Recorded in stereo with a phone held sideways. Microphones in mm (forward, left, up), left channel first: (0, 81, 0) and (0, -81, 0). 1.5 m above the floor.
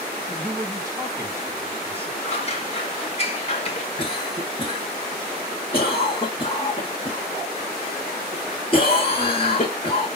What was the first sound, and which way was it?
A man speaking, 20° right (ahead or behind).